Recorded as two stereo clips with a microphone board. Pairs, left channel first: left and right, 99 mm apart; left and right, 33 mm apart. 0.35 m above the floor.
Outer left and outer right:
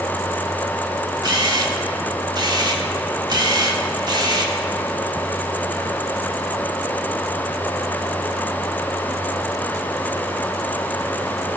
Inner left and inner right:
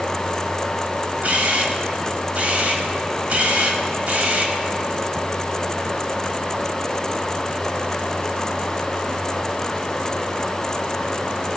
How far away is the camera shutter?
About 1.1 m.